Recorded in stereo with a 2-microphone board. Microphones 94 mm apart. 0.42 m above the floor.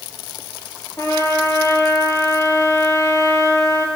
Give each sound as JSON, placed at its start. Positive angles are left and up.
{"t": 1.0, "sound": "a trumpet", "side_deg": 35, "distance_m": 1.4}